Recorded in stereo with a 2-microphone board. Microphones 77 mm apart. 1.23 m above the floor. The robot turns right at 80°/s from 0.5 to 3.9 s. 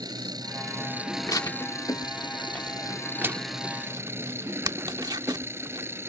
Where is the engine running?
60° right; by 6.1 s 150° right.